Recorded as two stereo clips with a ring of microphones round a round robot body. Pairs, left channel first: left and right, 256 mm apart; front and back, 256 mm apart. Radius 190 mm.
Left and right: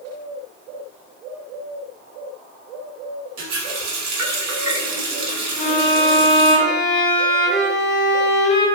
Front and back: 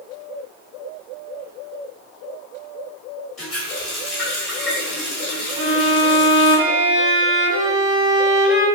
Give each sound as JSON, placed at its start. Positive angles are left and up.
{"t": 3.4, "sound": "a running tap", "azimuth_deg": -90, "distance_m": 1.1}
{"t": 5.6, "sound": "a violin", "azimuth_deg": 165, "distance_m": 1.7}